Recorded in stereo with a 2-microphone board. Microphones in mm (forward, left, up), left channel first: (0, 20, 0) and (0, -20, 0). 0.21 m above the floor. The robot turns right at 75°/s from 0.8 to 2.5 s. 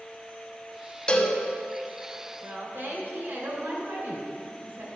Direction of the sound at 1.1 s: 25° left (ahead or behind).